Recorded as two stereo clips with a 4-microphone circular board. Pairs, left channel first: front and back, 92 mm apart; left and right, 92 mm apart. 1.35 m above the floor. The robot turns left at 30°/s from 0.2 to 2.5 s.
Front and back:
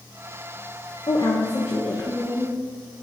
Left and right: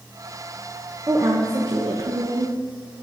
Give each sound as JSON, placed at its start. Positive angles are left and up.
{"t": 1.1, "sound": "a woman speaking", "azimuth_deg": -35, "distance_m": 0.8}